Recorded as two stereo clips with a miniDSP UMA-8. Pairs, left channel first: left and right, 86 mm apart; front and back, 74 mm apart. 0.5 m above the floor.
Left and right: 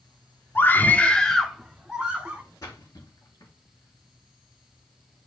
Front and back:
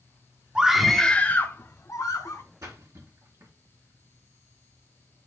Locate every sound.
0.6 s a scream: 115° left, 0.7 m; by 2.4 s 15° right, 1.1 m
2.6 s a splash: 140° left, 3 m